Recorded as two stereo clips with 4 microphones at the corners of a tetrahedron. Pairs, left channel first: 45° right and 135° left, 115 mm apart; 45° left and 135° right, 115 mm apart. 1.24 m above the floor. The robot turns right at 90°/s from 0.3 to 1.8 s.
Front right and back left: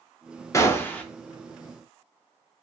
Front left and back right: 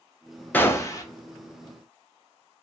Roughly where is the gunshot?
Ahead.